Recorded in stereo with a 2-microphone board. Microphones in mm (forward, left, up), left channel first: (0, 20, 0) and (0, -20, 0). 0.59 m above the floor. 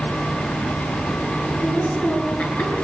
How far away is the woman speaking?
About 9 m.